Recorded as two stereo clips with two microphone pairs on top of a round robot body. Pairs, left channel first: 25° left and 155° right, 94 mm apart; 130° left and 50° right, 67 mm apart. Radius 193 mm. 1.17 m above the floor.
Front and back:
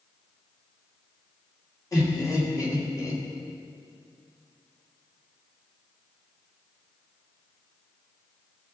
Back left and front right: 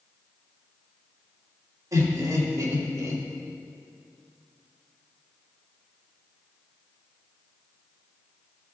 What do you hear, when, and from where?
1.9 s laughter: 25° right, 3 m